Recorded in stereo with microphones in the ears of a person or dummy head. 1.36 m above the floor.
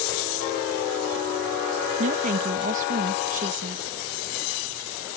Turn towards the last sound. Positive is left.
turn(degrees=-45)  # may be behind; listen again after turning